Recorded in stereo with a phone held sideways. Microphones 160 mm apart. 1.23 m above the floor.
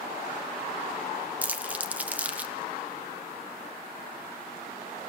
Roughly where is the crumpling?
Centre.